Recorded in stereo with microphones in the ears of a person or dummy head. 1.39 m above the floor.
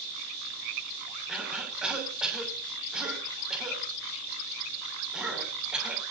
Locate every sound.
1.3 s a cough: centre (ahead or behind), 6 m